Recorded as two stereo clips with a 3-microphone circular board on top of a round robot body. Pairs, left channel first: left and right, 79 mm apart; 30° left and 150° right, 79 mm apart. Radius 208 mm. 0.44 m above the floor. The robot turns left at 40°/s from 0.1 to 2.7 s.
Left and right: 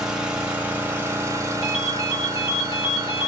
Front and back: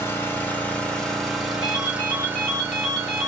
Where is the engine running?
10° right, 1.2 m; by 3.3 s 115° right, 1.2 m.